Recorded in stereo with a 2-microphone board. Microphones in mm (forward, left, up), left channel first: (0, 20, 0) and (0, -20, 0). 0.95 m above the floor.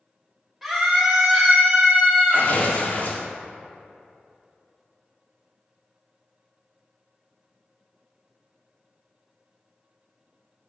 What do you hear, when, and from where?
0.6 s a scream: 10° right (ahead or behind), 1.4 m; by 2.5 s 50° right (ahead or behind), 1.2 m
2.3 s tearing paper: 50° left (ahead or behind), 1.2 m